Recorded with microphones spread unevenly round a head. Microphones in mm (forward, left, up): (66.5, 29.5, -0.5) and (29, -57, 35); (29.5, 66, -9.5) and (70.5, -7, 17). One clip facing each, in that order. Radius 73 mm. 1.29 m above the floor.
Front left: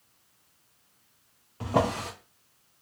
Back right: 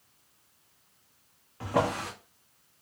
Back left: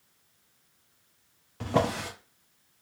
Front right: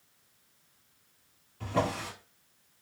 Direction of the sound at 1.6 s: 150° left.